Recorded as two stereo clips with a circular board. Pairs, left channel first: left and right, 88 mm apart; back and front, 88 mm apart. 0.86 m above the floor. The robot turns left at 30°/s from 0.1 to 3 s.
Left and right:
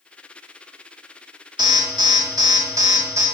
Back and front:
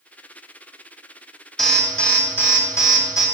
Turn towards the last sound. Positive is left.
turn(degrees=-135)